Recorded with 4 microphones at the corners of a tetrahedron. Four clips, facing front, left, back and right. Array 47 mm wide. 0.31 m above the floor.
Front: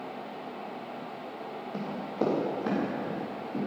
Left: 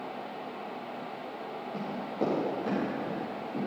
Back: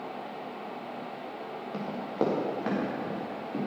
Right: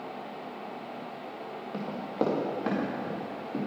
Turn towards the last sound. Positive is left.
turn(degrees=-130)